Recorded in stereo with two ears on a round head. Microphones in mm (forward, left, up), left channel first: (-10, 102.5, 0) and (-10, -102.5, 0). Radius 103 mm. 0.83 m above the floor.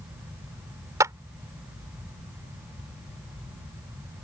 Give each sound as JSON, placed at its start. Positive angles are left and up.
{"t": 1.0, "sound": "a clap", "side_deg": -15}